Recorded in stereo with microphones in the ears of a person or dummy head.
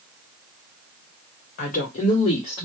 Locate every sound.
1.6 s a woman speaking: 40° left (ahead or behind), 1.4 m; by 2.6 s 10° left (ahead or behind), 1.1 m